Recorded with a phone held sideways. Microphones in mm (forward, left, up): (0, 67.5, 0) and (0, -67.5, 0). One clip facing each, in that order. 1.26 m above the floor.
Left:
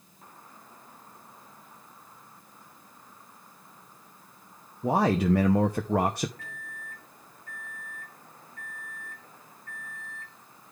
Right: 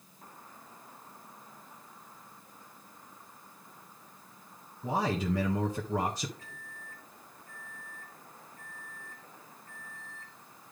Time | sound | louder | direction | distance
4.8 | a man speaking | left 7 dB | 65° left (ahead or behind) | 0.7 m
6.4 | a microwave | left 5 dB | 75° left (ahead or behind) | 1.5 m